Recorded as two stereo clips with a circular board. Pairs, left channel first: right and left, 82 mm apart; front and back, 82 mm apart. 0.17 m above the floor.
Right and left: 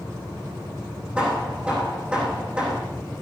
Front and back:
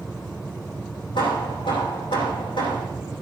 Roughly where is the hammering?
Ahead.